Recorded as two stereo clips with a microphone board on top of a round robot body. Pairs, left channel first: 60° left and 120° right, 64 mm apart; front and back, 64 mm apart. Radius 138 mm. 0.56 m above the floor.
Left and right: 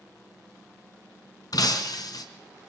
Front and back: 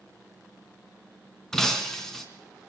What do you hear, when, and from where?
1.5 s breaking glass: 85° left, 3 m